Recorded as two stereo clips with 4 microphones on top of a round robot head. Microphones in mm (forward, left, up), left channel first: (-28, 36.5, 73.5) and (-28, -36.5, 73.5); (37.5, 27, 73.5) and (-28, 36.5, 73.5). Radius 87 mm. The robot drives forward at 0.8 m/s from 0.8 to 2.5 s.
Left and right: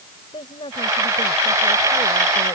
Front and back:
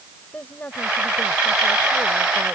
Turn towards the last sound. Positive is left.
turn(degrees=70)